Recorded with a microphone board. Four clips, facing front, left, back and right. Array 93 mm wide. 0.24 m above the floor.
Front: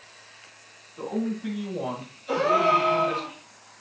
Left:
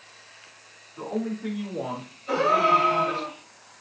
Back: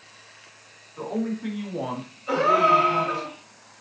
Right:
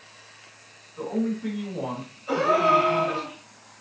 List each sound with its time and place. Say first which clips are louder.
1.0 s a man speaking: right 2 dB, back 1 dB; straight behind, 2.0 m; by 3.3 s 150° right, 1.2 m
2.3 s a gasp: even, back 2 dB; 160° right, 2.5 m